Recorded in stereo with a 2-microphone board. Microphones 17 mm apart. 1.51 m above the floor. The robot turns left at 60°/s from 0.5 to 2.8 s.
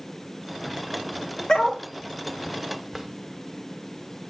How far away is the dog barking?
About 1.6 m.